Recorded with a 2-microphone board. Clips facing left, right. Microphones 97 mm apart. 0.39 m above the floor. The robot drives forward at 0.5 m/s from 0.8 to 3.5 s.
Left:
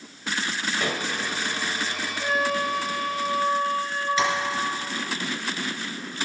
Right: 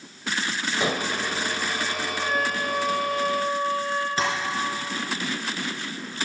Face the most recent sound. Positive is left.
turn(degrees=-40)  # may be behind; listen again after turning